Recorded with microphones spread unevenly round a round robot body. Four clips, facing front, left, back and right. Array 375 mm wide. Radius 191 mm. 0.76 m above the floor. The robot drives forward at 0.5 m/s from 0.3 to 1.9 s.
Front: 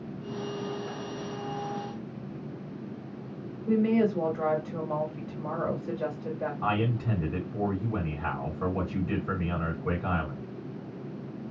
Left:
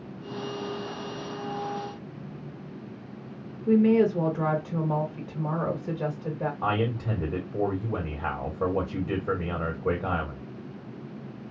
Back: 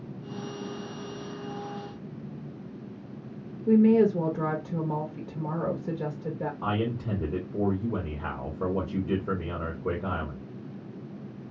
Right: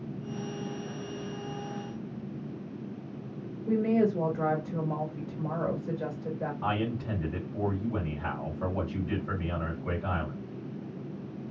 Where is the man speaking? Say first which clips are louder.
Left 4 dB, front 1 dB; 140° left, 1.5 m.